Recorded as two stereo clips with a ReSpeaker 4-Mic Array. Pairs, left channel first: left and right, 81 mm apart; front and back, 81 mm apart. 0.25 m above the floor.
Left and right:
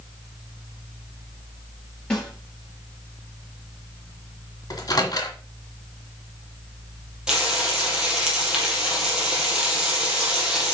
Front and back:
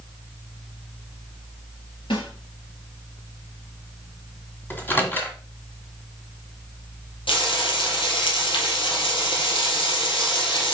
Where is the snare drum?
15° left, 4 m.